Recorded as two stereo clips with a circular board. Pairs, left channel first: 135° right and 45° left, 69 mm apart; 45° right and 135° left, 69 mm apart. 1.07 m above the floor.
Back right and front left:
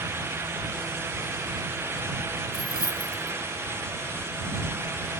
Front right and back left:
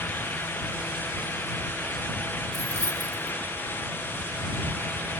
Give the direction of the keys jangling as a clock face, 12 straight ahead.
3 o'clock.